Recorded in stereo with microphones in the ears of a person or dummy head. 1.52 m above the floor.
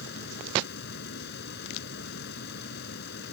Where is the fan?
55° left (ahead or behind).